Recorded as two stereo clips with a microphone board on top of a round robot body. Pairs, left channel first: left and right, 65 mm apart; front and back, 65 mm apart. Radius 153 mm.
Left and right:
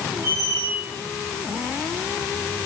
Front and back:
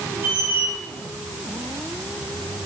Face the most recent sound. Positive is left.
turn(degrees=-125)